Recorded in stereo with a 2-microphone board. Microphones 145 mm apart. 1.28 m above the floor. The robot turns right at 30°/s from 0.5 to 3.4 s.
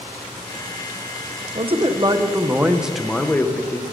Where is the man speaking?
45° right, 0.8 m; by 3.8 s 10° left, 0.8 m.